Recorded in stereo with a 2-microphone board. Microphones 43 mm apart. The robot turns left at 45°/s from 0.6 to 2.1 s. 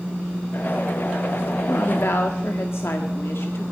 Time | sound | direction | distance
1.7 | a woman speaking | 60° left (ahead or behind) | 1.6 m